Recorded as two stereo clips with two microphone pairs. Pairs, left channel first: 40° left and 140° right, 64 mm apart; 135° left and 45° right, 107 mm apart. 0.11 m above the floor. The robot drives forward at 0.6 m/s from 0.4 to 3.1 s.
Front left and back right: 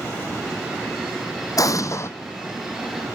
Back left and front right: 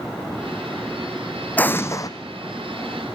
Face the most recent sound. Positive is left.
turn(degrees=125)